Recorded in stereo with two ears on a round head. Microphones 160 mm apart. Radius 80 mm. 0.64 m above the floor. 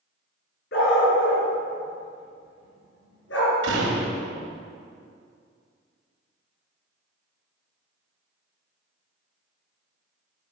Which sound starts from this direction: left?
A dog barking, at 0.7 s.